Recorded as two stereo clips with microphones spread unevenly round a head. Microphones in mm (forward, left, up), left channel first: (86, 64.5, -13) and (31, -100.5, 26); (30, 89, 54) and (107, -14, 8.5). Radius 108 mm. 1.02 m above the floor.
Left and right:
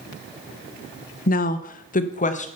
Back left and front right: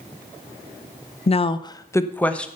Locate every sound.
1.3 s a woman speaking: 80° left, 0.8 m; by 2.5 s 35° left, 1.2 m